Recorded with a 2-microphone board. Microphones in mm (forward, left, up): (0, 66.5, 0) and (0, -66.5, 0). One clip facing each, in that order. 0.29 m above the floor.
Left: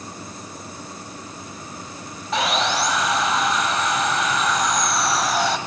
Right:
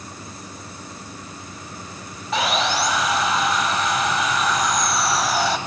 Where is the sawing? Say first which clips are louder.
Even; centre (ahead or behind), 0.7 m.